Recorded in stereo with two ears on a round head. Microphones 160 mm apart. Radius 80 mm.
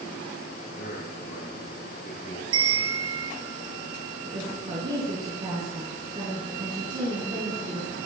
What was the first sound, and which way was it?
A man speaking, 55° left (ahead or behind).